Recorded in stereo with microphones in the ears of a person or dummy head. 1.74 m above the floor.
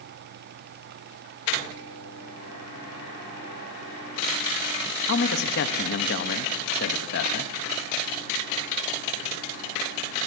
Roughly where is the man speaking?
Left.